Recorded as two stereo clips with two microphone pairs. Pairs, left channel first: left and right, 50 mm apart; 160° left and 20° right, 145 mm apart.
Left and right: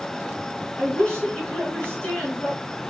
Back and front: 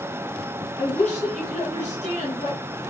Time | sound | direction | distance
0.8 | a woman speaking | 155° left | 3 m